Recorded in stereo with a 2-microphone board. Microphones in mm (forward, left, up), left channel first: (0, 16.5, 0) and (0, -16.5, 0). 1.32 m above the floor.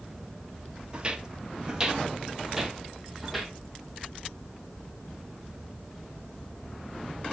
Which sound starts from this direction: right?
Footsteps, at 0.9 s.